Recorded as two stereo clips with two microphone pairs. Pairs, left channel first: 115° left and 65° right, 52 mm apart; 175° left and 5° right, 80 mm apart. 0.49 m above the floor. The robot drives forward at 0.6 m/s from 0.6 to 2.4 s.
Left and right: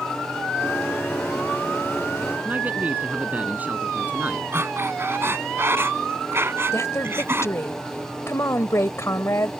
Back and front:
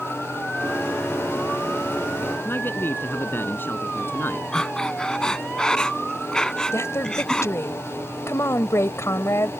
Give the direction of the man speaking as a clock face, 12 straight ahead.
4 o'clock.